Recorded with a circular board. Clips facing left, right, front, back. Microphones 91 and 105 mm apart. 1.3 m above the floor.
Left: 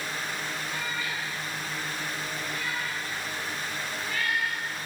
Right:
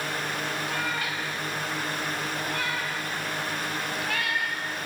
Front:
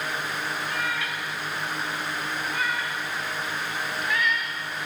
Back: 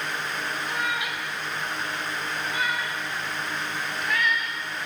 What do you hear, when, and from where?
0.7 s a cat meowing: 110° right, 4 m; by 4.6 s 85° right, 5.5 m